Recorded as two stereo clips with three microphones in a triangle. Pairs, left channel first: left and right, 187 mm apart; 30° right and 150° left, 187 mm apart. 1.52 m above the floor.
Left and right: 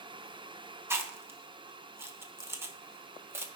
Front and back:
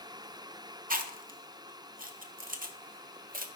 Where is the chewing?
165° right, 0.8 m.